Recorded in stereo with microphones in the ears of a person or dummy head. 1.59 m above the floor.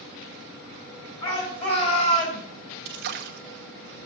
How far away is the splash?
About 1.1 m.